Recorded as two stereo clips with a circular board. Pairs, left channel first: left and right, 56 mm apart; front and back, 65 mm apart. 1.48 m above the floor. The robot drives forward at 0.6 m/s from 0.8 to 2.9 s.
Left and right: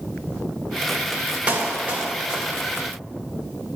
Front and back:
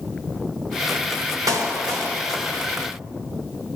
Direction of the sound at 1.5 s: 155° right.